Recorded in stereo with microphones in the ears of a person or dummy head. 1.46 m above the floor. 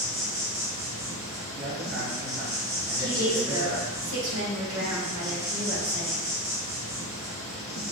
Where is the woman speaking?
75° right (ahead or behind), 0.9 m.